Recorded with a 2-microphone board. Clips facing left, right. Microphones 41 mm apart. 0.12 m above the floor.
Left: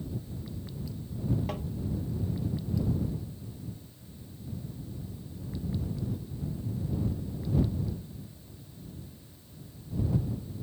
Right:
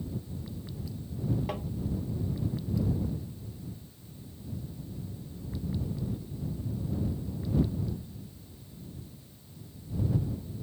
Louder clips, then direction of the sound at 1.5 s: Right 1 dB; 5° right (ahead or behind).